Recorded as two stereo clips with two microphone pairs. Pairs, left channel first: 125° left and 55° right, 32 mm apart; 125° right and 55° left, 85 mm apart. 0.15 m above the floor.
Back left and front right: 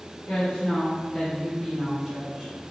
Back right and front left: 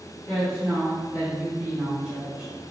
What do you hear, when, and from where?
0.3 s a woman speaking: 130° left, 1.9 m; by 2.5 s 5° right, 1.6 m